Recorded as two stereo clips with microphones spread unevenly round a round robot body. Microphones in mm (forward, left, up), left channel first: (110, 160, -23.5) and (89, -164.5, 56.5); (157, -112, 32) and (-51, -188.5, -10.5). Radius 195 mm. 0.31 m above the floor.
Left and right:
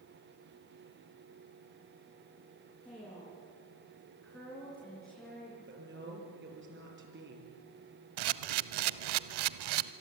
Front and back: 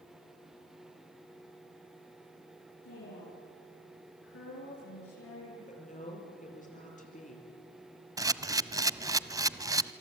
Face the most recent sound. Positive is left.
turn(degrees=-85)